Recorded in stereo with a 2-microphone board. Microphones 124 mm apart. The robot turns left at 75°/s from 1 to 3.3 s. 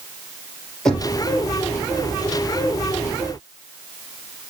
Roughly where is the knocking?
Centre.